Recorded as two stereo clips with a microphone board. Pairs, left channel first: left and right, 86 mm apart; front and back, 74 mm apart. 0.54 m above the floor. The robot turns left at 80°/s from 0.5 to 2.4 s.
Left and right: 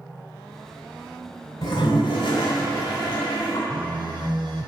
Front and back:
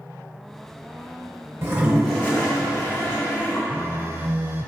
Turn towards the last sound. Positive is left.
turn(degrees=-120)